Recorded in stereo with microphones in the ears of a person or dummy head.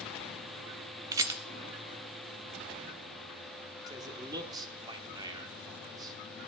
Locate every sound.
1.1 s a rattle: 20° right (ahead or behind), 0.5 m
3.9 s a man speaking: 25° right (ahead or behind), 1.4 m